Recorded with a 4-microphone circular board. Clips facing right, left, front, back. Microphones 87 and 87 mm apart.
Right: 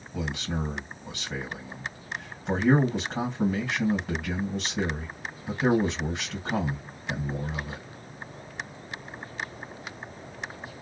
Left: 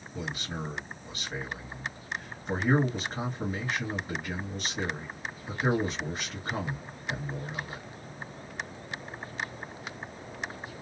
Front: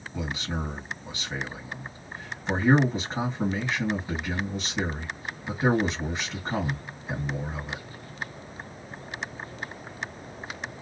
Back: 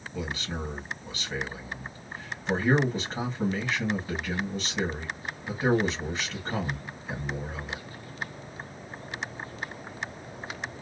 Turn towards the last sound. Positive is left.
turn(degrees=-85)